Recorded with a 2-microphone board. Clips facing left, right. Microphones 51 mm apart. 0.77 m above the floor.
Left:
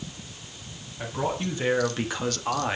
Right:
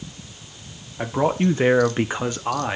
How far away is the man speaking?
About 1.3 m.